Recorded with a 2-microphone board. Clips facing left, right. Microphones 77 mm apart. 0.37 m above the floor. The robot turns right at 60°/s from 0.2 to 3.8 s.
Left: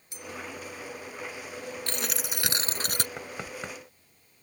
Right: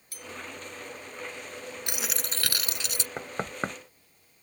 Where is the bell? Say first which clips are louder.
Left 2 dB; 20° left (ahead or behind); by 0.3 s 10° left (ahead or behind).